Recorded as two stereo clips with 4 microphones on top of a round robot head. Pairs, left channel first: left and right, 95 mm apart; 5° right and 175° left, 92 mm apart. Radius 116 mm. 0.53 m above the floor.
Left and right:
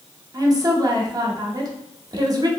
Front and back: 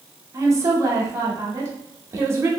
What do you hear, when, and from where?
0.3 s a woman speaking: 130° right, 1.0 m